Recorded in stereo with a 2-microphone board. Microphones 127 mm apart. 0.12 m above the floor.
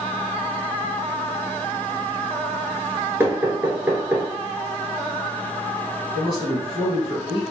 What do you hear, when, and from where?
3.2 s knocking: 15° right (ahead or behind), 1.1 m
6.2 s a man speaking: 30° left (ahead or behind), 1.3 m